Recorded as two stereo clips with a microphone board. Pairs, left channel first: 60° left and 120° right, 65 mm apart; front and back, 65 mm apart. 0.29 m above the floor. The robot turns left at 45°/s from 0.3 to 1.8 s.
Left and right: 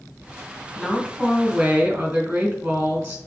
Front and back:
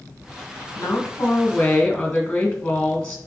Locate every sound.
0.8 s a woman speaking: 25° right, 2.5 m; by 3.2 s 75° right, 2.5 m